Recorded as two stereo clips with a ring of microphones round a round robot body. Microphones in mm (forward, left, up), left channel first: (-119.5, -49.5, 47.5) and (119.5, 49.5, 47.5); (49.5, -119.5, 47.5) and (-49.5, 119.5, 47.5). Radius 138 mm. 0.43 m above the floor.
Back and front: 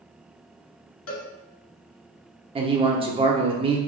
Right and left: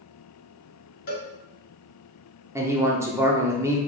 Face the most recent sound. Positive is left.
turn(degrees=50)